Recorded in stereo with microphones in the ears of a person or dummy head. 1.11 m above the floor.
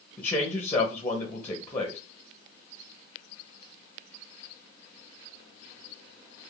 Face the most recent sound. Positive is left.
turn(degrees=10)  # may be behind; listen again after turning